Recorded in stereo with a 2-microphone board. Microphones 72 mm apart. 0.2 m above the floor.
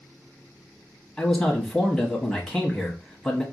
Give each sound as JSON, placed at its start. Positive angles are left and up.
{"t": 1.2, "sound": "a man speaking", "side_deg": 10, "distance_m": 1.0}